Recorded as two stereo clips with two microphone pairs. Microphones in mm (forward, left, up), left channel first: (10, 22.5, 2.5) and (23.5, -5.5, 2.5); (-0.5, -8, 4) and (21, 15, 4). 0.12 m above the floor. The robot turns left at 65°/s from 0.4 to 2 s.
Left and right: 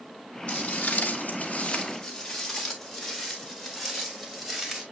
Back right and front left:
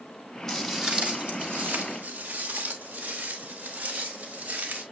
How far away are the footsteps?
About 3 m.